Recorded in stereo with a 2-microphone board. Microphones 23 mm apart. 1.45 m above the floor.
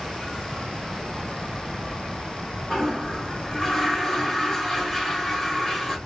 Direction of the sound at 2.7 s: 25° left (ahead or behind).